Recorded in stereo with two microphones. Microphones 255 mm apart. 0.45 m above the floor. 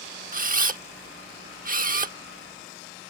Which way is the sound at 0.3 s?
35° right (ahead or behind).